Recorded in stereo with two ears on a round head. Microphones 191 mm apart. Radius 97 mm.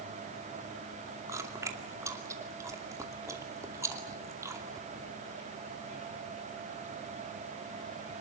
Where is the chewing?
15° right (ahead or behind), 2.5 m.